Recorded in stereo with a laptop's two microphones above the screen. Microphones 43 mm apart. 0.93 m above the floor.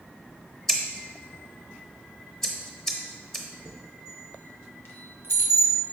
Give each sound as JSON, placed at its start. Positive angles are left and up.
{"t": 0.7, "sound": "scissors", "side_deg": 10, "distance_m": 0.8}
{"t": 3.6, "sound": "a chime", "side_deg": 55, "distance_m": 0.6}